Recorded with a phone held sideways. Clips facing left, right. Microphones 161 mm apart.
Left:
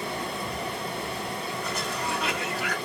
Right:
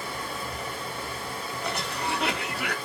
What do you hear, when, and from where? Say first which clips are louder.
0.0 s running water: left 3 dB; 65° left (ahead or behind), 2.5 m
1.6 s a cough: right 3 dB; 70° right (ahead or behind), 1.2 m